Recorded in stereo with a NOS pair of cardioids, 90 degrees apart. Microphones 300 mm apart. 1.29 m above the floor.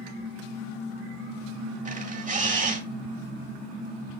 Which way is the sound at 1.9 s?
25° right.